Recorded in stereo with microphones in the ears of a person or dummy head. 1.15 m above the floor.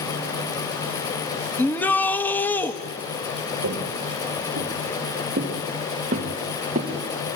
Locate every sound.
1.6 s a shout: 5° left (ahead or behind), 1.4 m
3.6 s footsteps: 55° right (ahead or behind), 4.5 m; by 6.9 s 30° right (ahead or behind), 5.5 m